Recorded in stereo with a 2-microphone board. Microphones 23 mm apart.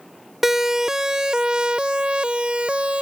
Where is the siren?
10° right (ahead or behind); by 3.0 s 55° right (ahead or behind).